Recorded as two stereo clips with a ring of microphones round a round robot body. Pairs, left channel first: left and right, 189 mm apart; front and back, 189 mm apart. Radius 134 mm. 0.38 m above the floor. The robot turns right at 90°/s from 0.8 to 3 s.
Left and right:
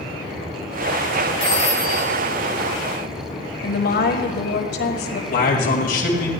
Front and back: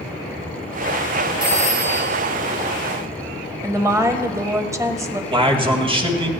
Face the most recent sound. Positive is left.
turn(degrees=125)